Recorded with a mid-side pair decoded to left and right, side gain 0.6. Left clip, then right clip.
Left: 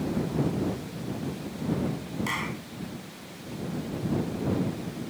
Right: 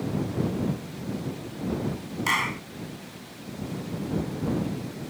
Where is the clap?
35° right.